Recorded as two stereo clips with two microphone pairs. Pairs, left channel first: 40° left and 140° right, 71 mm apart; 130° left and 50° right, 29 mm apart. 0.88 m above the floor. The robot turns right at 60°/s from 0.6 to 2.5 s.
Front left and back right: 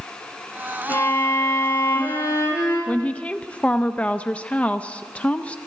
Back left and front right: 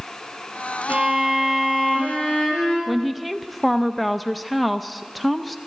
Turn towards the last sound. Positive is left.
turn(degrees=60)